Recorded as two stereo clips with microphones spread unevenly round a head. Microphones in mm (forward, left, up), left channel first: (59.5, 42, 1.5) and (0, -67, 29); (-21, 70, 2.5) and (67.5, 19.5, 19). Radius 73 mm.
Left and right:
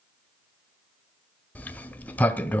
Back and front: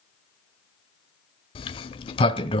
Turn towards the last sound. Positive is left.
turn(degrees=150)